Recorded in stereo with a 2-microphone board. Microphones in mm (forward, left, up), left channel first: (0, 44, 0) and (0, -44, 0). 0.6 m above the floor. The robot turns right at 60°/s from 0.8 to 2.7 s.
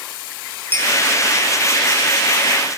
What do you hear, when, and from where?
0.7 s a clink: 25° left (ahead or behind), 4.5 m; by 0.9 s 20° left (ahead or behind), 4.5 m